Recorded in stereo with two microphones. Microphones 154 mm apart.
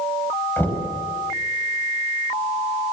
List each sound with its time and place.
0.6 s knocking: 10° left (ahead or behind), 5 m